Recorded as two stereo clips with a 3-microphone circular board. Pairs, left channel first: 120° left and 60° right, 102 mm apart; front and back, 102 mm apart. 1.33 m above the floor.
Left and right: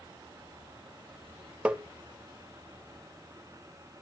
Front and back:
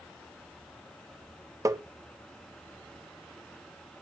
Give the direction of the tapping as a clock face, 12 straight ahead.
4 o'clock.